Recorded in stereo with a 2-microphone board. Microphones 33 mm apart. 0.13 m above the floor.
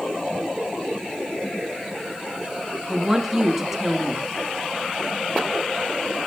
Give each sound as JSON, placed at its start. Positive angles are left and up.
{"t": 2.9, "sound": "a woman speaking", "side_deg": -5, "distance_m": 1.0}